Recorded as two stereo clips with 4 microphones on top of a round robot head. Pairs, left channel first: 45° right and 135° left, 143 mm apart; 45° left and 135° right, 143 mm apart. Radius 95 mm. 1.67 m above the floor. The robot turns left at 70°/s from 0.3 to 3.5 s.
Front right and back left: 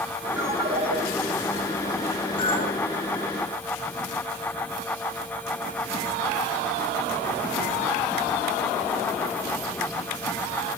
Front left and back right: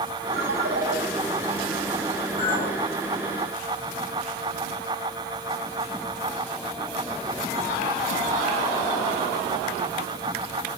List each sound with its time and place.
0.3 s a ringtone: 140° right, 5.5 m; by 1.0 s 175° left, 5.5 m
2.4 s a clink: 10° left, 6.5 m; by 2.8 s 20° right, 6.5 m